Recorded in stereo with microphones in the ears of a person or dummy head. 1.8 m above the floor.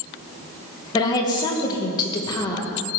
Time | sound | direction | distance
0.9 | a woman speaking | 20° left (ahead or behind) | 2 m